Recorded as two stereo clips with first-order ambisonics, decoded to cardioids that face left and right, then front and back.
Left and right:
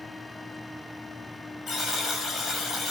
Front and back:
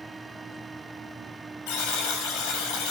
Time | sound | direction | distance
1.7 | a buzzer | 25° left | 7.5 m